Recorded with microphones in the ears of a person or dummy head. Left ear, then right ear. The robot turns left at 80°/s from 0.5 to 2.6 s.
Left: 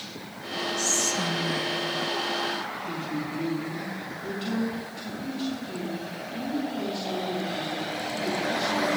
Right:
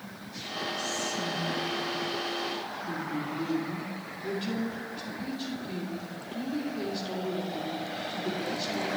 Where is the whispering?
150° left, 1.1 m; by 1.8 s 70° left, 1.1 m.